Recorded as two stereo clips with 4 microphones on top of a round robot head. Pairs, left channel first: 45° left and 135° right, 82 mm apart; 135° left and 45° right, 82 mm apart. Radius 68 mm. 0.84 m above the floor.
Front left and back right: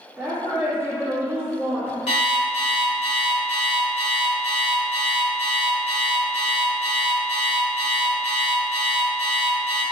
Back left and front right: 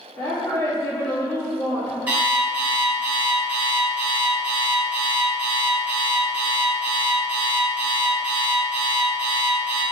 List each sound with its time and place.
0.2 s a woman speaking: 165° left, 1.2 m
2.1 s an alarm clock: 25° left, 0.6 m